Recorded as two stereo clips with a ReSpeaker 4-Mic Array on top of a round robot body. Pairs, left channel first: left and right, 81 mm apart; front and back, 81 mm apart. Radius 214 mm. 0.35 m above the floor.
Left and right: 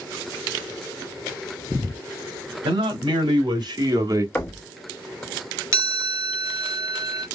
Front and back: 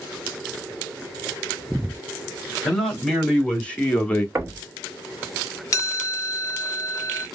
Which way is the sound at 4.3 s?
150° left.